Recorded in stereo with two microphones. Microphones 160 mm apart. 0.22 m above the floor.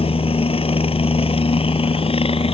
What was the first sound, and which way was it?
A helicopter, 35° left (ahead or behind).